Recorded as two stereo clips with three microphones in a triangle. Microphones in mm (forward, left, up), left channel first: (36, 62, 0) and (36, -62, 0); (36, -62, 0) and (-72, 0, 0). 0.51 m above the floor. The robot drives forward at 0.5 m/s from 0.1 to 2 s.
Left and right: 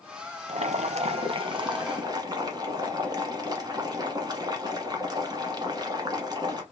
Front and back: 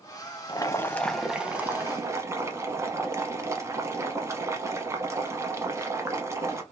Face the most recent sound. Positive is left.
turn(degrees=-145)